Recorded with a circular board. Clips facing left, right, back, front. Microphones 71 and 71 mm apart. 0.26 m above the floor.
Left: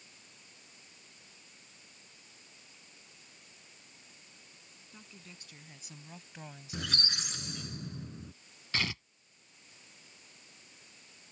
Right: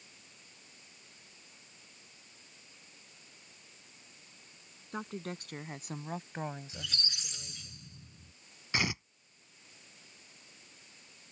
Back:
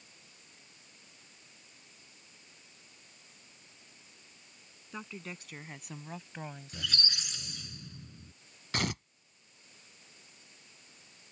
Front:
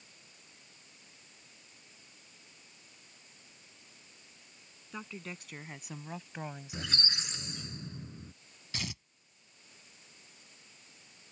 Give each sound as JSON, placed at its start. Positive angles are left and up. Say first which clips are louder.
{"t": 4.9, "sound": "a woman speaking", "louder": "right 15 dB, even", "azimuth_deg": -90}
{"t": 6.7, "sound": "a squeak", "louder": "left 5 dB, back 1 dB", "azimuth_deg": 60}
{"t": 8.7, "sound": "tearing paper", "louder": "right 2 dB, back 8 dB", "azimuth_deg": -160}